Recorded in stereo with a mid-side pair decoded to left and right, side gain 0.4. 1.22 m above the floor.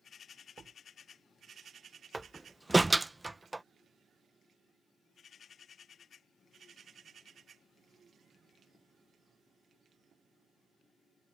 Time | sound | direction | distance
0.6 | a door slam | 50° right | ?
2.1 | a door slam | 20° right | ?